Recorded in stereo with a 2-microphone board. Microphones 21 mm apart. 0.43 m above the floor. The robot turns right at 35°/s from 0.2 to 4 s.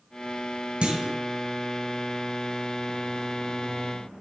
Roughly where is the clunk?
Right.